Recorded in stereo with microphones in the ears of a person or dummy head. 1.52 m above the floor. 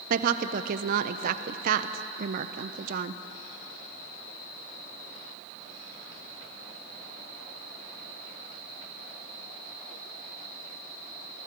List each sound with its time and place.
0.1 s a woman speaking: 50° right (ahead or behind), 0.6 m